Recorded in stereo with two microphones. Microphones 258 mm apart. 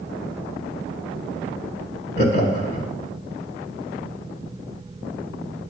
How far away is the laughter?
About 1.6 m.